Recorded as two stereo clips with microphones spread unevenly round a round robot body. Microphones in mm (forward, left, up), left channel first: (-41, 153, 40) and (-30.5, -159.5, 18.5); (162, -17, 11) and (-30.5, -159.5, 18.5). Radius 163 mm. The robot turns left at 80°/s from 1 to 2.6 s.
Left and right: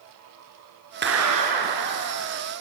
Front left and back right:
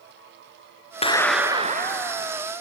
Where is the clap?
30° right, 4 m; by 2.4 s 140° right, 4 m.